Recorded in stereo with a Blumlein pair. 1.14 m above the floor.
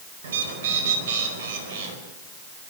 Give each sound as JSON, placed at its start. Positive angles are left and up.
{"t": 0.2, "sound": "a bird", "azimuth_deg": -60, "distance_m": 4.5}